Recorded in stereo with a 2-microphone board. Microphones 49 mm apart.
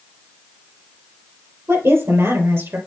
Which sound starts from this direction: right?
A woman speaking, at 1.7 s.